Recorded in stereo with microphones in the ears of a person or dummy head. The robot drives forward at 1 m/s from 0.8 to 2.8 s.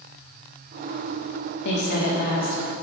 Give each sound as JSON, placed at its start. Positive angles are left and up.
{"t": 1.6, "sound": "a woman speaking", "side_deg": 55, "distance_m": 1.7}